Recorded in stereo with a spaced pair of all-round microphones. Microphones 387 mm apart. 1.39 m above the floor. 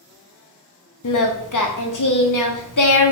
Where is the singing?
50° left (ahead or behind), 0.6 m.